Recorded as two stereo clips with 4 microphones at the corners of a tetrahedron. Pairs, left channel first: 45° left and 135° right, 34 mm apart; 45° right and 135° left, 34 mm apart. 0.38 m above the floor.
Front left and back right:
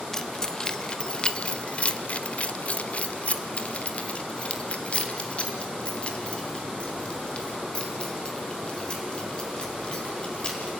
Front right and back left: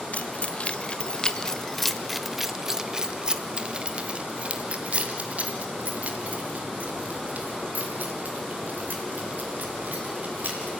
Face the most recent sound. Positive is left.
turn(degrees=105)